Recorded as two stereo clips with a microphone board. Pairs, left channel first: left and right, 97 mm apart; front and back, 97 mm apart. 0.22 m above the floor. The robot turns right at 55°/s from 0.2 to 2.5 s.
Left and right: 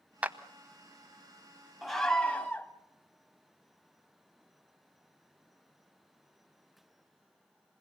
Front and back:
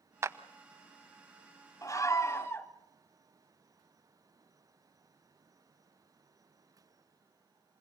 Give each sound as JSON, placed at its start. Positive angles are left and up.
{"t": 0.2, "sound": "a clap", "azimuth_deg": -150, "distance_m": 0.9}
{"t": 1.8, "sound": "a scream", "azimuth_deg": -5, "distance_m": 1.6}